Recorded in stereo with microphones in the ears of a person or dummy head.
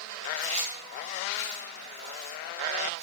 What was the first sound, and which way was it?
Chewing, 30° right (ahead or behind).